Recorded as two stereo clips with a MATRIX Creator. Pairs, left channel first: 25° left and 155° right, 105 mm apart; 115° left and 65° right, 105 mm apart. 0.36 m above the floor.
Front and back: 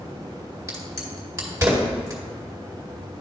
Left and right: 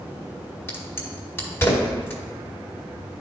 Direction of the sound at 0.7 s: 160° left.